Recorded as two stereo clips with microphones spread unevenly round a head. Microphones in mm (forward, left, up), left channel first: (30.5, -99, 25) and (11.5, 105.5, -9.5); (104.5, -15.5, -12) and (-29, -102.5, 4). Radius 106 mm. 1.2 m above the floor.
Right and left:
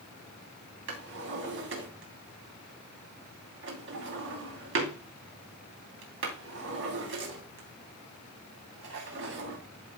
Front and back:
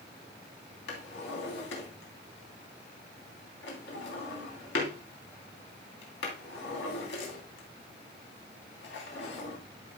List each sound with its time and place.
0.9 s a drawer: 65° left, 3 m